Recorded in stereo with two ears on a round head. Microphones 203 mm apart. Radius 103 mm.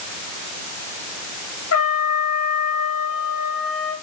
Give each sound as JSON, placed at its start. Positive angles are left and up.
{"t": 1.7, "sound": "a trumpet", "side_deg": 65, "distance_m": 3.0}